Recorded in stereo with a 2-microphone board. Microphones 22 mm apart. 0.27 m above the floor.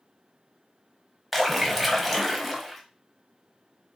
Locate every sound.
1.3 s a splash: centre (ahead or behind), 0.6 m